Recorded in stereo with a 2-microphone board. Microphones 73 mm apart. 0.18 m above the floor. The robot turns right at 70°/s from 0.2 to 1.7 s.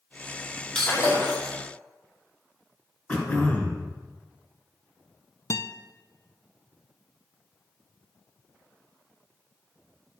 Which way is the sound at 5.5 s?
50° left (ahead or behind).